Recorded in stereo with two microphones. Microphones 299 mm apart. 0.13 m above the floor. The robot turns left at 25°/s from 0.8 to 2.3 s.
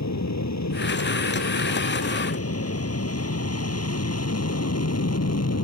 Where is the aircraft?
65° left (ahead or behind); by 5.7 s 55° left (ahead or behind).